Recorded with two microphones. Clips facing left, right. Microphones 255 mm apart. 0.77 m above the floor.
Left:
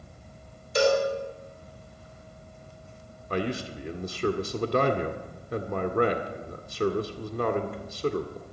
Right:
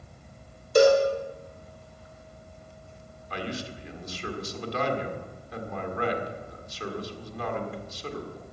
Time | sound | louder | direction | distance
0.8 | a cowbell | right 5 dB | 50° right (ahead or behind) | 3.5 m
3.3 | a man speaking | left 5 dB | 60° left (ahead or behind) | 1.8 m